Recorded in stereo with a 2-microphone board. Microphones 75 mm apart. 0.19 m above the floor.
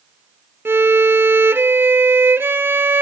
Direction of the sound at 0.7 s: 30° right (ahead or behind).